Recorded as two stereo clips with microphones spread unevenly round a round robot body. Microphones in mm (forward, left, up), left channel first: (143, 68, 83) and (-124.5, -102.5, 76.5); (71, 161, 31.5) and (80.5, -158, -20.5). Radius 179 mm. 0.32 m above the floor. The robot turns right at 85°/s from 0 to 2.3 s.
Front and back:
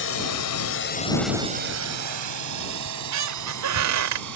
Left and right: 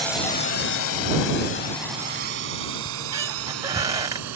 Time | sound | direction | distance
0.0 | a drone | 5° right | ?
2.9 | a squeak | 160° right | ?